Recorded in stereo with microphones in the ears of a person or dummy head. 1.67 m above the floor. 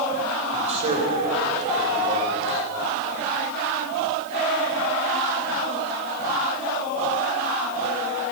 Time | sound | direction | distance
0.5 | a man speaking | 35° right (ahead or behind) | 5 m